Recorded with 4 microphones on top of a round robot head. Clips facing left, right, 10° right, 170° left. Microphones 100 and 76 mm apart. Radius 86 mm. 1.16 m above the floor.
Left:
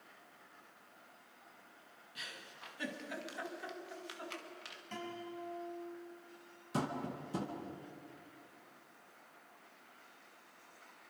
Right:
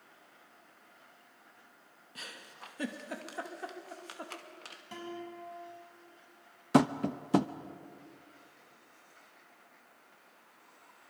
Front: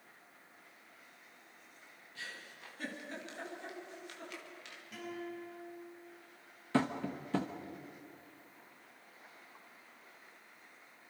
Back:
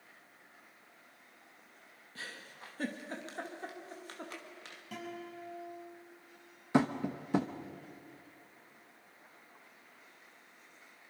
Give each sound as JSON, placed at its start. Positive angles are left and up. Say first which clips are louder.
{"t": 2.1, "sound": "a giggle", "louder": "right 3 dB, back 1 dB", "azimuth_deg": -135, "distance_m": 2.5}
{"t": 4.9, "sound": "a guitar", "louder": "right 2 dB, front 1 dB", "azimuth_deg": -170, "distance_m": 8.0}
{"t": 6.7, "sound": "tapping", "louder": "right 12 dB, back 3 dB", "azimuth_deg": -110, "distance_m": 0.9}